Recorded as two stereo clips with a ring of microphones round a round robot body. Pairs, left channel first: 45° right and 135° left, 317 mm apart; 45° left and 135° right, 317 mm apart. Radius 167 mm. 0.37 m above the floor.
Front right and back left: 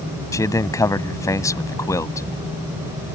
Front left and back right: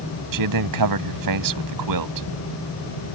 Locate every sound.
0.3 s a man speaking: 125° right